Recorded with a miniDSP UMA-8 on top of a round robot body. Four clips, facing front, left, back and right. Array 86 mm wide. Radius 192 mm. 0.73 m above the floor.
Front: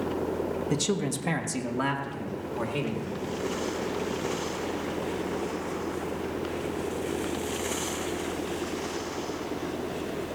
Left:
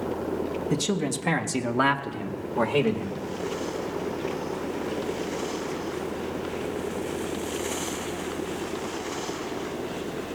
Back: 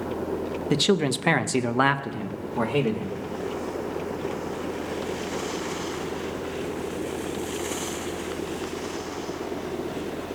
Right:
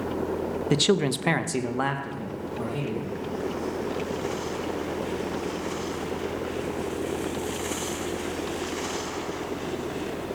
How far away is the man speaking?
About 1.1 m.